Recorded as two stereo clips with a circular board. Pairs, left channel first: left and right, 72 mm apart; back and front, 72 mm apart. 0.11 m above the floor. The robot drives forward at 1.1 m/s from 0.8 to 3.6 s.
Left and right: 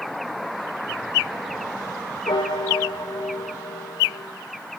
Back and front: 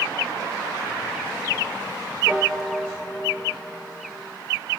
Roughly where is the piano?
Left.